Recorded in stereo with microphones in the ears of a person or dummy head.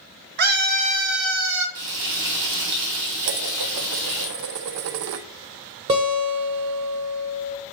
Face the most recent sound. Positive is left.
turn(degrees=-20)  # may be behind; listen again after turning